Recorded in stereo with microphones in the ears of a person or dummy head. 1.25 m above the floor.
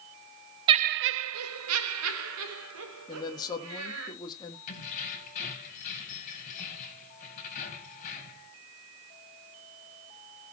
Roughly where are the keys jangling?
Left.